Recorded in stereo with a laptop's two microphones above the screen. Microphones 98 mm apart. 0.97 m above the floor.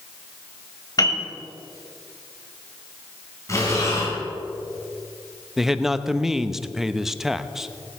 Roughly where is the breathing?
Left.